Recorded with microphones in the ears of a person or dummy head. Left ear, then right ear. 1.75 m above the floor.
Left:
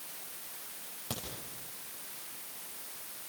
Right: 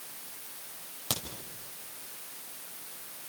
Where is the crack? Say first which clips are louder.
Right 7 dB; 35° right (ahead or behind), 5 m.